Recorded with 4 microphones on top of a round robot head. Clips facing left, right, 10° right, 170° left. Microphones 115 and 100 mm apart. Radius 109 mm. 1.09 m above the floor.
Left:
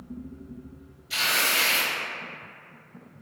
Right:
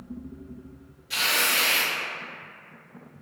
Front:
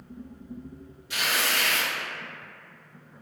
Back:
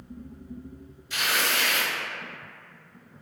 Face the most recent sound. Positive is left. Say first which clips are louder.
# even, back 1 dB
turn(degrees=-40)